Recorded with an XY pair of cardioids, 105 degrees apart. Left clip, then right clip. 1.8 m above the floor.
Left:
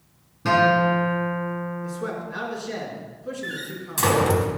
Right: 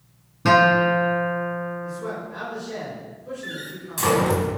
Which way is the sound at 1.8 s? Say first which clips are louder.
Even; 50° left.